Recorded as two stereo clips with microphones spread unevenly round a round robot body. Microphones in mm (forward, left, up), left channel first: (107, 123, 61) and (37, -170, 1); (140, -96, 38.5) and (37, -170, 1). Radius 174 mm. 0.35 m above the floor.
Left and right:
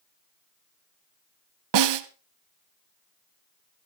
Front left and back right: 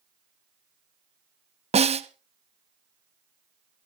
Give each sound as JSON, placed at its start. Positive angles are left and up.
{"t": 1.7, "sound": "a snare drum", "azimuth_deg": -115, "distance_m": 0.9}